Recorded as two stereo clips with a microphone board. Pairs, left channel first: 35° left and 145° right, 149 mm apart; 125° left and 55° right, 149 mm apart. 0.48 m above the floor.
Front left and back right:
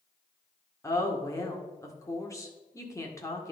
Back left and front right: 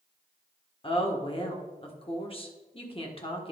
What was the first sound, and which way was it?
A woman speaking, 95° left.